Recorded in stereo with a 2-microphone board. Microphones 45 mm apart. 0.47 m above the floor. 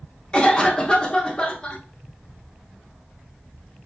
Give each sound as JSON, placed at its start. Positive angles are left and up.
{"t": 0.3, "sound": "a cough", "side_deg": 20, "distance_m": 0.7}